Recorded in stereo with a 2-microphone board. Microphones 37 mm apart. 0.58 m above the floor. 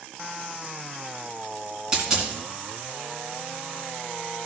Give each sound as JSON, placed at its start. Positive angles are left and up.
{"t": 1.9, "sound": "a dropped coin", "side_deg": -20, "distance_m": 2.5}